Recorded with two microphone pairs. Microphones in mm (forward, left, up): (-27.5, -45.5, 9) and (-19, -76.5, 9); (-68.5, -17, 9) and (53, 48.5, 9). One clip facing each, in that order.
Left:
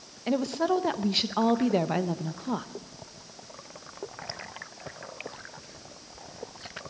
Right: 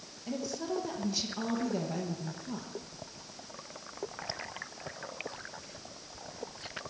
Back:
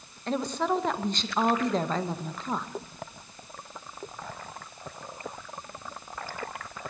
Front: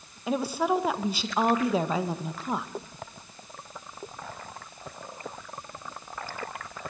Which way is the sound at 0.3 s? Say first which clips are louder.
Left 10 dB, front 2 dB; 110° left.